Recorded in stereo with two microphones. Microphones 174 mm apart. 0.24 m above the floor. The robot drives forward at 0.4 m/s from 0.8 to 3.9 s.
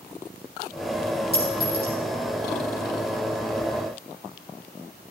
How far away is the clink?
About 4 m.